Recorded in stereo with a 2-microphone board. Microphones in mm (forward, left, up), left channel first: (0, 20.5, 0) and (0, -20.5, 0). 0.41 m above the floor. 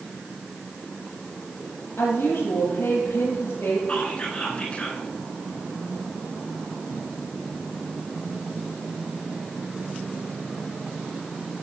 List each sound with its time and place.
2.0 s a woman speaking: 80° left, 9 m
3.9 s whispering: 30° left (ahead or behind), 5 m